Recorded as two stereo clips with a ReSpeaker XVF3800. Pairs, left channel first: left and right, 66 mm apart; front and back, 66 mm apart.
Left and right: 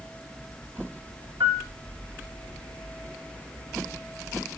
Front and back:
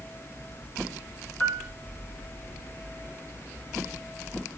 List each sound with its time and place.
1.4 s a piano: 75° right, 1.9 m